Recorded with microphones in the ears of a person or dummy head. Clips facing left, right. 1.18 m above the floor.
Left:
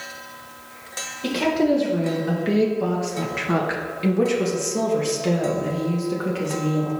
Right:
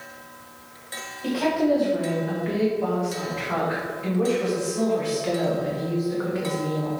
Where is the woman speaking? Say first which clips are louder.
Left 2 dB; 35° left (ahead or behind), 1.7 m; by 6.9 s 40° left (ahead or behind), 2 m.